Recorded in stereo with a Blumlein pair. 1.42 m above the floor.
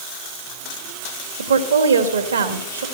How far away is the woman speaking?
About 1.8 m.